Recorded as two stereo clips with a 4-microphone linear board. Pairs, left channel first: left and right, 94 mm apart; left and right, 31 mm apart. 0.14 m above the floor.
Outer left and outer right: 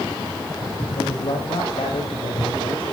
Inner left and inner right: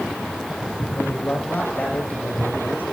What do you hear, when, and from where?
1.0 s a man speaking: 70° left (ahead or behind), 6 m